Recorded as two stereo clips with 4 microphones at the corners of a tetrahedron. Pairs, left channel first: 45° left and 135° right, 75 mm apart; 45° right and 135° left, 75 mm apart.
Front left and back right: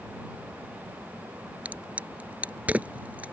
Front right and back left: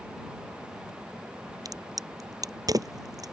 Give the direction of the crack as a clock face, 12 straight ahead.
7 o'clock.